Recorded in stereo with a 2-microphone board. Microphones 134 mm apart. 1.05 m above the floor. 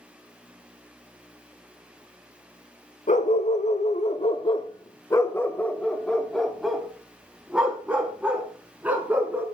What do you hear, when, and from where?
3.1 s a dog barking: 70° left (ahead or behind), 1.5 m; by 9.4 s 15° right (ahead or behind), 4.5 m